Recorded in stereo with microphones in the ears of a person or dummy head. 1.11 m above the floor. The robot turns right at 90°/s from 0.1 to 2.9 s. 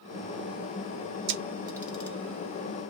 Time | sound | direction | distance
1.3 | a camera shutter | 60° right (ahead or behind) | 1.5 m